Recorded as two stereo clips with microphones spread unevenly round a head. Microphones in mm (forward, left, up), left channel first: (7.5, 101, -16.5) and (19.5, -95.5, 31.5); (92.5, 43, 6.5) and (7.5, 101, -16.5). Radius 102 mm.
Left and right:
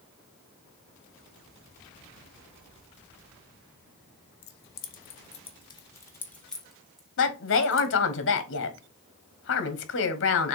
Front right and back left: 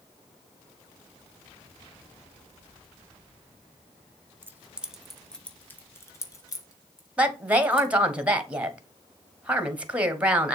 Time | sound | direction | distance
4.4 | keys jangling | 70° left | 1.1 m
7.2 | a woman speaking | 70° left | 1.5 m